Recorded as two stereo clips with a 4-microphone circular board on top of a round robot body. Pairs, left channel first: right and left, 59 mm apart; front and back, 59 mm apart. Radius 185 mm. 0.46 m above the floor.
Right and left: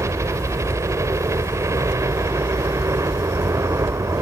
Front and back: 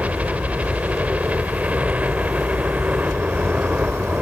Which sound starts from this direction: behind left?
A helicopter, at 0.0 s.